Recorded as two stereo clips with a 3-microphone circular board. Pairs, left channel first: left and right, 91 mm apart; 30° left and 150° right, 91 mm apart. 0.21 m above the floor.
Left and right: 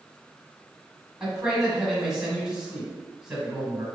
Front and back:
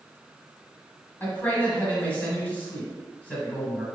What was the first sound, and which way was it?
A man speaking, 15° right.